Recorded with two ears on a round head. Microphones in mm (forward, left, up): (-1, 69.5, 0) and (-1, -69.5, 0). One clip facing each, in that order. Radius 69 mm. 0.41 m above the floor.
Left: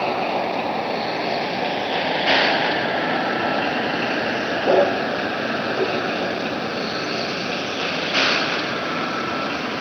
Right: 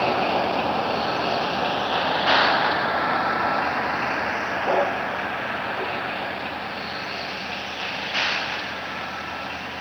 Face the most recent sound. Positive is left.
turn(degrees=70)  # may be behind; listen again after turning